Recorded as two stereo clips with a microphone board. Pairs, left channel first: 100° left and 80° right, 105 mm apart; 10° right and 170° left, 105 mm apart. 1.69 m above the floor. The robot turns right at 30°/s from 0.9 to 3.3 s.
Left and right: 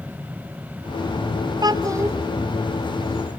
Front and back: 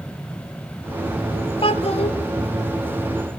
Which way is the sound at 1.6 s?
35° right.